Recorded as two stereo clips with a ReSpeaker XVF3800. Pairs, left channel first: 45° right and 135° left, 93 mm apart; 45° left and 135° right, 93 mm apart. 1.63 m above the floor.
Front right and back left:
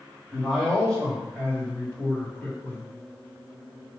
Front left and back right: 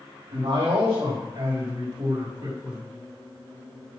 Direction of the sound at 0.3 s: 130° right.